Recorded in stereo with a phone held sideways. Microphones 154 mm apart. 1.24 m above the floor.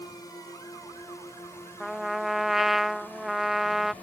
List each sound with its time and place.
0.0 s a drone: 25° left (ahead or behind); by 4.0 s 10° left (ahead or behind)
1.8 s a trumpet: centre (ahead or behind)